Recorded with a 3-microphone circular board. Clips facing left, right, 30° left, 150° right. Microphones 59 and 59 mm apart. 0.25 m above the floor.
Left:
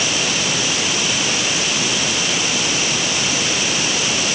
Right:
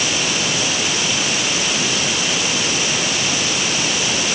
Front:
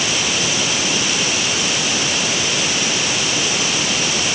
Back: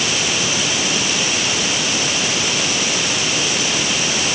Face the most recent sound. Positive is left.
No sound to turn to.